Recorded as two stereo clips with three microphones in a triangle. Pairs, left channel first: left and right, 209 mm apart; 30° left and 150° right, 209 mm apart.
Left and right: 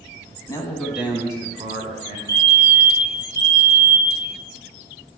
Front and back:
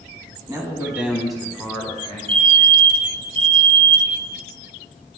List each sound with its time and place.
0.5 s a man speaking: 150° left, 1.3 m; by 2.2 s 50° right, 2 m
2.3 s a fire alarm: 40° right, 2 m